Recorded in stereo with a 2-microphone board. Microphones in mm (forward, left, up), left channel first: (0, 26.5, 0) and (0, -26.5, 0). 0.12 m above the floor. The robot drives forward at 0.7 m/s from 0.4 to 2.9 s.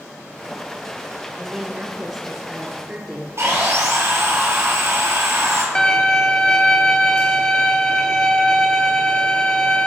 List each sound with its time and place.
1.4 s a woman speaking: 10° right (ahead or behind), 1.1 m; by 3.3 s 5° right (ahead or behind), 1.8 m
3.4 s sawing: 55° right (ahead or behind), 2.5 m
5.8 s a violin: 20° left (ahead or behind), 0.6 m